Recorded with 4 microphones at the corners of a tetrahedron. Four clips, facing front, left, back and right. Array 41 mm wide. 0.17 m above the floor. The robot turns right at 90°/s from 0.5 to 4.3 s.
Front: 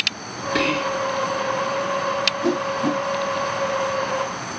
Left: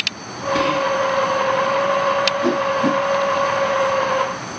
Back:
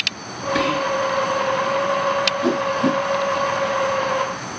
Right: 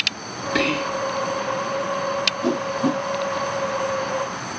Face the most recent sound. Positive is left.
turn(degrees=-70)